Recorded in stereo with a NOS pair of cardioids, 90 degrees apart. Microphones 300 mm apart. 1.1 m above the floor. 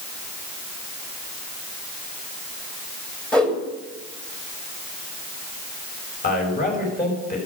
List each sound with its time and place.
3.3 s a whoosh: 5° left, 2 m
6.2 s a man speaking: 30° left, 5 m